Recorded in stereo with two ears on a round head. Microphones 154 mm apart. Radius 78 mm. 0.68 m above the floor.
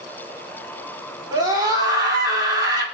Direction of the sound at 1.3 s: 25° right (ahead or behind).